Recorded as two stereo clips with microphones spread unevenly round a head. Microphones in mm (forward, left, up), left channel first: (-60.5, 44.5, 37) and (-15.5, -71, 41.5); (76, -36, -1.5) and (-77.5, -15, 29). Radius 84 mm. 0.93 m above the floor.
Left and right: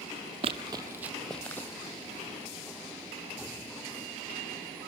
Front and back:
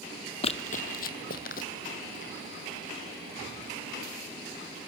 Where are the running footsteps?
55° right, 1.1 m; by 2.3 s 45° left, 2.5 m.